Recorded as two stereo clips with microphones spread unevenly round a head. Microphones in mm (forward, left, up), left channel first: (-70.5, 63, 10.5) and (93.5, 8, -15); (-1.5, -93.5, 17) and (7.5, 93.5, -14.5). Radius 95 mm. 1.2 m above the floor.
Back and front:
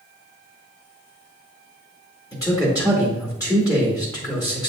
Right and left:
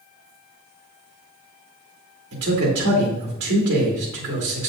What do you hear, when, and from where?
2.3 s a man speaking: 90° left, 2 m